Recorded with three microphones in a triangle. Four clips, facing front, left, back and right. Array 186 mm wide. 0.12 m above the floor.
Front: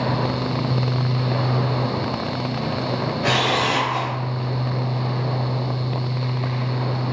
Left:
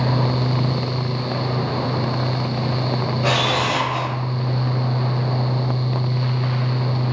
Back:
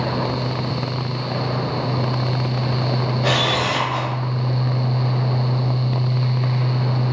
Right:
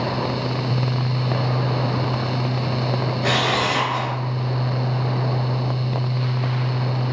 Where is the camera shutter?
140° left, 1.2 m.